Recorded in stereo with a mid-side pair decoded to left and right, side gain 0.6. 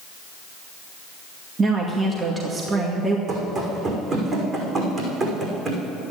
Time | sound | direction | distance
1.6 | a woman speaking | 30° right | 2 m
3.3 | running footsteps | 35° right | 5.5 m